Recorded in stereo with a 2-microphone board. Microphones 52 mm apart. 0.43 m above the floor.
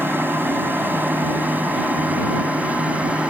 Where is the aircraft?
45° right (ahead or behind); by 3.3 s 25° right (ahead or behind).